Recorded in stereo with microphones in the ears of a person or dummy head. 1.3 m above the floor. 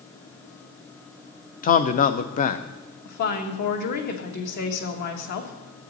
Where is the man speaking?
35° left (ahead or behind), 0.6 m.